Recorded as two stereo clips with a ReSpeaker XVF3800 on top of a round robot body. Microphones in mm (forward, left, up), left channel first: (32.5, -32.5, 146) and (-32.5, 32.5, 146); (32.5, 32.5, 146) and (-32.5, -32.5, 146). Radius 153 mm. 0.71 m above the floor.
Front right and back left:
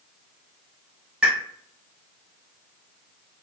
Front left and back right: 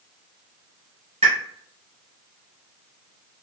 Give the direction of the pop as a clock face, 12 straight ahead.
5 o'clock.